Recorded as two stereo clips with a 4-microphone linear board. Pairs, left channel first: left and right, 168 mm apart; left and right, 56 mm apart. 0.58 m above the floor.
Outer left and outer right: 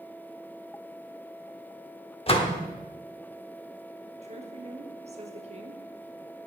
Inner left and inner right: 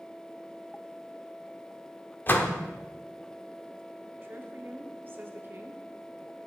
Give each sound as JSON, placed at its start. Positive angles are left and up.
{"t": 2.3, "sound": "a door slam", "side_deg": 35, "distance_m": 0.9}
{"t": 4.2, "sound": "a woman speaking", "side_deg": -40, "distance_m": 1.0}